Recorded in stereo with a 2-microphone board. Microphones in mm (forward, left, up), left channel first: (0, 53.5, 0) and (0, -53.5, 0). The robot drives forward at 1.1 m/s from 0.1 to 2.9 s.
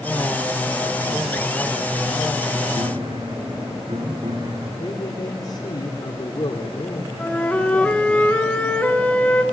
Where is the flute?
15° left (ahead or behind), 2.5 m.